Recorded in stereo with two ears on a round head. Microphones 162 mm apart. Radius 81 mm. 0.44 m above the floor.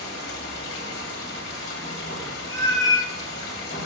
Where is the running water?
60° left (ahead or behind), 2.5 m.